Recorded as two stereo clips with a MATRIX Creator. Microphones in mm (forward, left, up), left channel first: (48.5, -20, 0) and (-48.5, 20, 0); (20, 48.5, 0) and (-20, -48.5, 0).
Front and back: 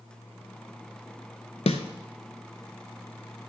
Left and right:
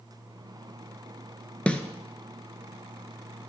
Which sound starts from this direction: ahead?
A snare drum, at 1.7 s.